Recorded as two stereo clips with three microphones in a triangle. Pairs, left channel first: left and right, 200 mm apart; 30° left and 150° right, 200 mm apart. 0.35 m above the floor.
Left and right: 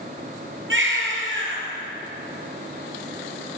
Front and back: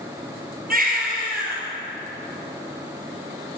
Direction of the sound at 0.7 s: 105° right.